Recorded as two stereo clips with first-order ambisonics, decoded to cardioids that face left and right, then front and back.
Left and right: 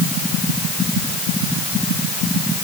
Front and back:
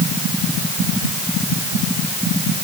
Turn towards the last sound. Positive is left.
No sound to turn to.